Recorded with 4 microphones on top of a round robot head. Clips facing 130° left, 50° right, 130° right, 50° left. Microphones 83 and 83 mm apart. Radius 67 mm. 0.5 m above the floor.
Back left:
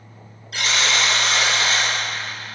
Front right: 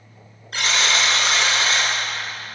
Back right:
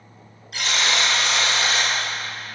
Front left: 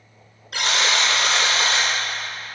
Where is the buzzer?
10° left, 5 m.